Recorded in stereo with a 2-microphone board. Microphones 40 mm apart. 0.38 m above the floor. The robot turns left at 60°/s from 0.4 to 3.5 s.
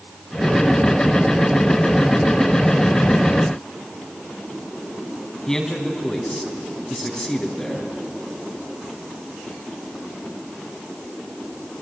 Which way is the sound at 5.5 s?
15° left (ahead or behind).